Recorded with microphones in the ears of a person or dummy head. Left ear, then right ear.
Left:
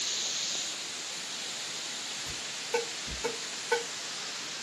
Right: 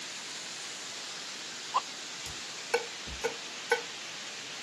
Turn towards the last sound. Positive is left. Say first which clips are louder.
# right 2 dB
turn(degrees=-60)  # may be behind; listen again after turning